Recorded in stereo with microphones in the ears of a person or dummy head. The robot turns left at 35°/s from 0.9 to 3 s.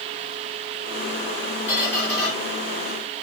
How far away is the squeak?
About 1.8 m.